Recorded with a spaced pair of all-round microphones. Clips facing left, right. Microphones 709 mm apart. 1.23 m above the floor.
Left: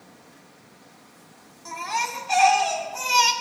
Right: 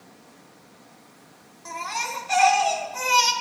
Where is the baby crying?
5° right (ahead or behind), 1.9 m.